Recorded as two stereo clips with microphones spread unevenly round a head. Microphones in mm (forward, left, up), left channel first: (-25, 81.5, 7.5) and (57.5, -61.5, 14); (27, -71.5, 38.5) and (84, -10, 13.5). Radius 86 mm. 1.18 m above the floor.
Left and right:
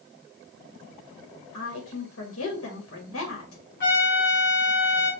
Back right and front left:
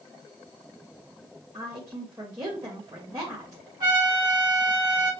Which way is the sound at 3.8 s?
85° left.